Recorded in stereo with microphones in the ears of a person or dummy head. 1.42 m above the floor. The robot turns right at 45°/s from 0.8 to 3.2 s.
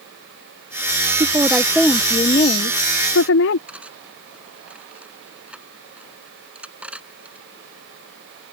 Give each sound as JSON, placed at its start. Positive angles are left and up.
{"t": 1.2, "sound": "a woman speaking", "azimuth_deg": -20}
{"t": 3.7, "sound": "cutlery clinking", "side_deg": -10}